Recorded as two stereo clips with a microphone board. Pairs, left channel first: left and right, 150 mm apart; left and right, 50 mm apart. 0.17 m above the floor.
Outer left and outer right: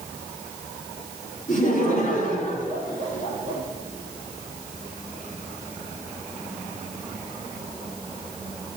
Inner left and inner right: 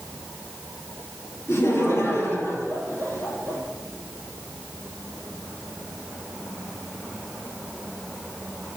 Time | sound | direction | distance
1.5 | laughter | 65° left (ahead or behind) | 4.5 m